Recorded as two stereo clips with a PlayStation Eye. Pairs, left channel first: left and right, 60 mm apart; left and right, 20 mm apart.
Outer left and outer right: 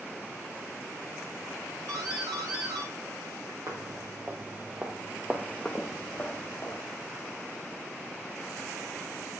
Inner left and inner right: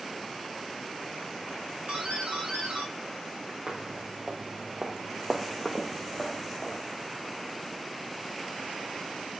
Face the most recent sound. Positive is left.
turn(degrees=25)  # may be behind; listen again after turning